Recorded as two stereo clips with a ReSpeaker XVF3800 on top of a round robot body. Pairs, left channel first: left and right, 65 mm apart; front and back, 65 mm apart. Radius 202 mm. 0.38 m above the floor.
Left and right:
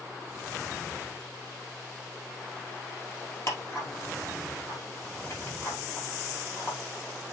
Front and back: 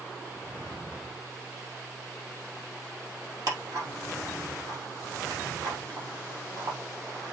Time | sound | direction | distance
3.5 | ticking | 140° left | 3 m